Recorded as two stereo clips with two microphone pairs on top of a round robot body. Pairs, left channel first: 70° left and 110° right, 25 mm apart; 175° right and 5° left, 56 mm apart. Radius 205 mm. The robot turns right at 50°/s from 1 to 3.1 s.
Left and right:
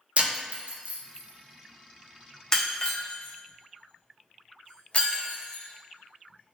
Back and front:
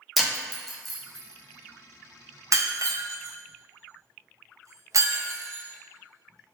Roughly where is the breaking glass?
Right.